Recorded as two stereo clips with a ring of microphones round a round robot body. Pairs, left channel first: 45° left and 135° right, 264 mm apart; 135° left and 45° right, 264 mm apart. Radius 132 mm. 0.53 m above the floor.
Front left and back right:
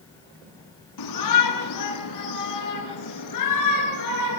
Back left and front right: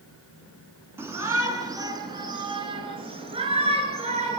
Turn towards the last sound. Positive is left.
turn(degrees=25)